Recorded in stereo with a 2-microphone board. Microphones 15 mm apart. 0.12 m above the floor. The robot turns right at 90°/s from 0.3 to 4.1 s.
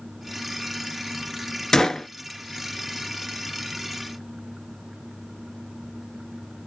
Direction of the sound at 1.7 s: 50° left.